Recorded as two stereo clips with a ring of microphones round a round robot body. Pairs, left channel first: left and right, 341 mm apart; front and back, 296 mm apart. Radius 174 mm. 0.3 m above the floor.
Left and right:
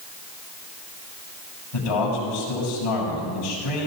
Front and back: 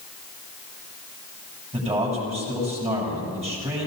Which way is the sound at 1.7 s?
110° left.